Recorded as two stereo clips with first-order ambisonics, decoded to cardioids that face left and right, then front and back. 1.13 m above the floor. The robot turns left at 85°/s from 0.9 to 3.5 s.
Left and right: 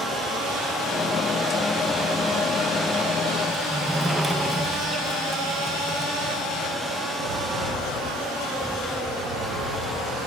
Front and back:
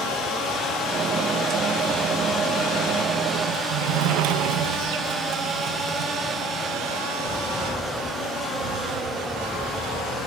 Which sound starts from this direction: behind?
A sliding door, at 3.5 s.